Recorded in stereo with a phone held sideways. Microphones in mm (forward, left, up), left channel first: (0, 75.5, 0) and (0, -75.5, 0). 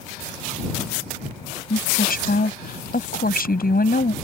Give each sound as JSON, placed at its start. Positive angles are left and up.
{"t": 1.7, "sound": "a woman speaking", "side_deg": 80}